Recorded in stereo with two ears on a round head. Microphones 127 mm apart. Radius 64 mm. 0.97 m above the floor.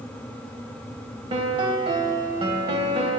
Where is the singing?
I don't hear singing.